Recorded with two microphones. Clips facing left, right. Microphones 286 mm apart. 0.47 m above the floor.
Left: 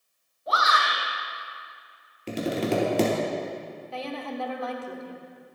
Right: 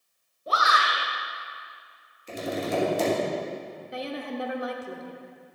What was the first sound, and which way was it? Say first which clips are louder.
A shout: even; 35° right (ahead or behind).